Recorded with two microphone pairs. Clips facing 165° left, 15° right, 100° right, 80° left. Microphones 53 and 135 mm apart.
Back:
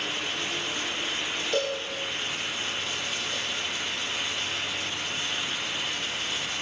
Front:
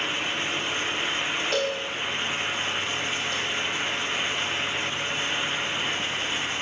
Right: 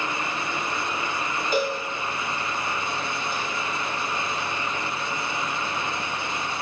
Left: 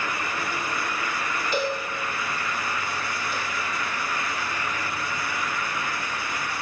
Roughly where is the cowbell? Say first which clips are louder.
Front 2 dB, right 2 dB; ahead right.